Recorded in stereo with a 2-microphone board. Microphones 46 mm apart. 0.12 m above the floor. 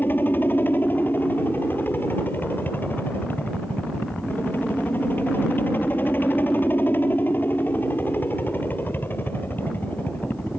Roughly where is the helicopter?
Left.